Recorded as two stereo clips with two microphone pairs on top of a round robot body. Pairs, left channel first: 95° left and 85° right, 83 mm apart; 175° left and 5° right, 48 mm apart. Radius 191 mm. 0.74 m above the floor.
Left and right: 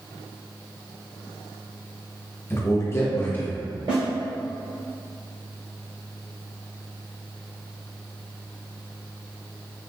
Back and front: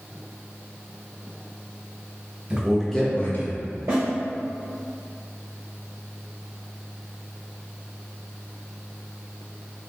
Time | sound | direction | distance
2.5 | a man speaking | 55° left | 1.1 m
3.9 | a snare drum | 45° right | 0.6 m